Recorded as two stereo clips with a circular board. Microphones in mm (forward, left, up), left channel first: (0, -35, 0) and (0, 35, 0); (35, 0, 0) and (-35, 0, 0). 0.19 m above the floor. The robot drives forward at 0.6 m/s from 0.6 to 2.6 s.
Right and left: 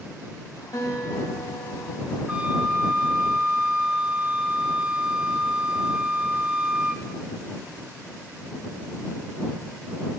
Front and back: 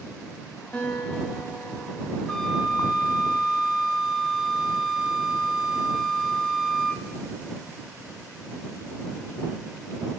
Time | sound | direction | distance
0.7 | a guitar | 70° right | 4.5 m
2.3 | a flute | 60° left | 0.9 m